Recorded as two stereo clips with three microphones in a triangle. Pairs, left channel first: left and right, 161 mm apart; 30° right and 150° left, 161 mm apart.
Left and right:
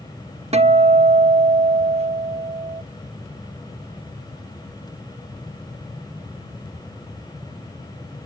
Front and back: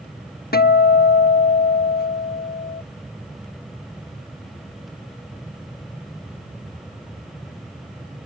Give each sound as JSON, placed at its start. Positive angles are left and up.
{"t": 0.5, "sound": "a guitar", "azimuth_deg": -40}